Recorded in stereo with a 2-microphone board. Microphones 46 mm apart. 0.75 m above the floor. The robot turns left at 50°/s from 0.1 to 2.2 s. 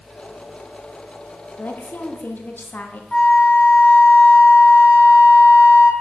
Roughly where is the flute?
Centre.